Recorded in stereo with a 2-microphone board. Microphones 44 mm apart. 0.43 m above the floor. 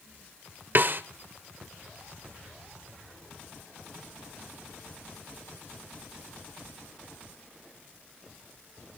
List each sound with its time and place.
0.8 s a snare drum: 45° right (ahead or behind), 0.9 m